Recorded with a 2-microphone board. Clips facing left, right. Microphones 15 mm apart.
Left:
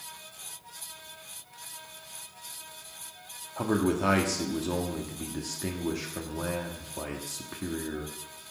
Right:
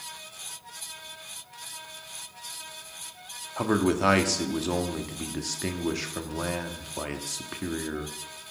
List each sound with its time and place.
3.6 s a man speaking: 30° right (ahead or behind), 1.2 m